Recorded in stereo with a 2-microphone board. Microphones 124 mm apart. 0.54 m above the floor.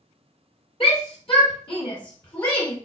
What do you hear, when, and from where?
0.8 s a shout: 50° left (ahead or behind), 1.9 m; by 2.8 s 25° left (ahead or behind), 1.8 m